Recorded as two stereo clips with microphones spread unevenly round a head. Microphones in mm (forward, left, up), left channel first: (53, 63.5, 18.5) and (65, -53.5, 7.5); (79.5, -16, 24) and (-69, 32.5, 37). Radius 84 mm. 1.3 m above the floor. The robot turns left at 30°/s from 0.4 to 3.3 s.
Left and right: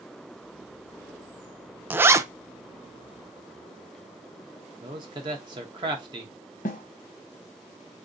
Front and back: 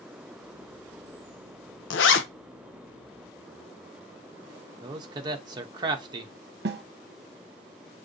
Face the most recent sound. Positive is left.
turn(degrees=140)